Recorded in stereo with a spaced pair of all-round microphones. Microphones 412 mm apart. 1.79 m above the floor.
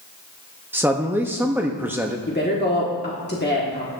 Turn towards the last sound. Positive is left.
turn(degrees=25)  # may be behind; listen again after turning